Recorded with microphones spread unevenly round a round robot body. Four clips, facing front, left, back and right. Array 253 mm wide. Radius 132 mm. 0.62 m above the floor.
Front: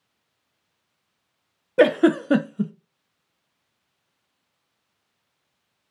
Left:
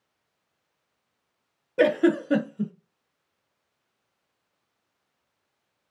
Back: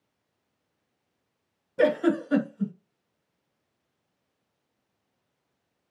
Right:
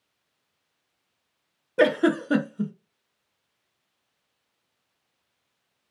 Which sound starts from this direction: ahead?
A giggle, at 1.8 s.